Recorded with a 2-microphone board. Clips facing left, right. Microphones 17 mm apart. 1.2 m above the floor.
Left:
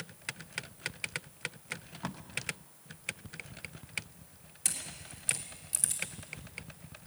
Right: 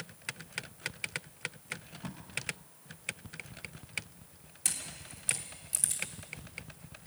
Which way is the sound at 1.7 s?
45° left (ahead or behind).